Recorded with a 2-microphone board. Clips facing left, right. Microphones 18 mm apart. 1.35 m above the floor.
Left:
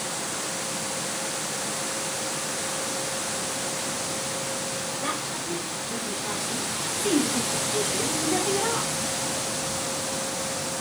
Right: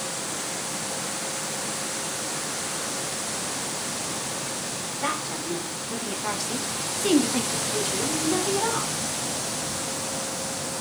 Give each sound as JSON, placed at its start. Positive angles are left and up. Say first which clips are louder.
{"t": 5.0, "sound": "a woman speaking", "louder": "right 5 dB", "side_deg": -40, "distance_m": 1.2}